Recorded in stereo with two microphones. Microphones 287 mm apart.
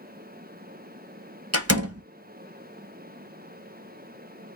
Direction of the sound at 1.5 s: 55° right (ahead or behind).